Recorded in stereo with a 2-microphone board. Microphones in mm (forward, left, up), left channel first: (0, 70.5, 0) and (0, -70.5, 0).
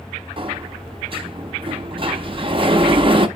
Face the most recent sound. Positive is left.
turn(degrees=-40)  # may be behind; listen again after turning